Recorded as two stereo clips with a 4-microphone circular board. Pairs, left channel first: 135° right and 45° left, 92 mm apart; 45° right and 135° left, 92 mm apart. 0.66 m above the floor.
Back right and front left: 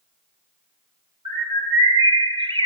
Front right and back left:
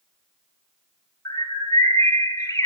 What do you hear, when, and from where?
1.2 s a bird: 10° left, 2.5 m